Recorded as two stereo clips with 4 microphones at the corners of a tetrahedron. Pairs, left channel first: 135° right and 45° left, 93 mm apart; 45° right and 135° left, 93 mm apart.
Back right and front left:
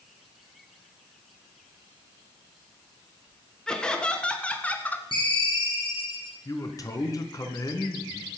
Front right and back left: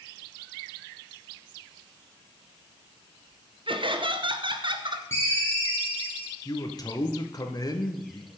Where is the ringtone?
105° right, 7.5 m.